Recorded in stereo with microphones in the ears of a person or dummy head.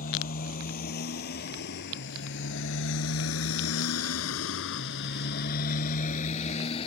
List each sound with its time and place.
0.0 s a motorcycle: 45° left (ahead or behind); by 6.9 s 30° left (ahead or behind)